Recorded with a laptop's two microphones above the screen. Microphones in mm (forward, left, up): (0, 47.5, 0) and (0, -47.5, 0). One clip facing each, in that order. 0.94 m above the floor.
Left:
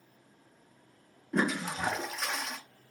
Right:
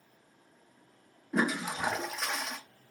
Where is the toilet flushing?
5° right (ahead or behind), 0.6 m.